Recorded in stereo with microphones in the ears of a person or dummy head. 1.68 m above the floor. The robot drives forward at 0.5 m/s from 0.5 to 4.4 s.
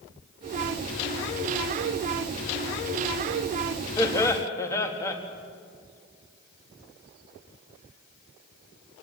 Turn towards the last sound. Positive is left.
turn(degrees=15)  # may be behind; listen again after turning